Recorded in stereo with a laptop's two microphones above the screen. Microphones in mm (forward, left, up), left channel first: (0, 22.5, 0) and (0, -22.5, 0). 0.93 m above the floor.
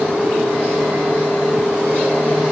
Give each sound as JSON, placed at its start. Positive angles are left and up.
{"t": 0.0, "sound": "a machine running", "side_deg": -70, "distance_m": 6.0}